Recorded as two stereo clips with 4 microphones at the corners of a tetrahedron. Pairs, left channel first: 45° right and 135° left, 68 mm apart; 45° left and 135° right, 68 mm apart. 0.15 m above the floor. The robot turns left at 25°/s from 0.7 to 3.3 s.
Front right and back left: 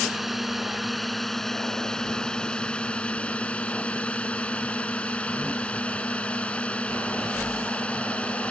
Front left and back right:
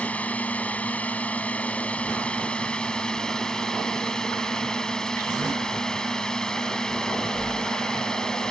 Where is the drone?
50° left; by 8.5 s 15° right.